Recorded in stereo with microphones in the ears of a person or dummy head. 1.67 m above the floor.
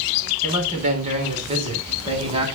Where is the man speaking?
40° right (ahead or behind), 5 m; by 2.5 s 30° right (ahead or behind), 5.5 m.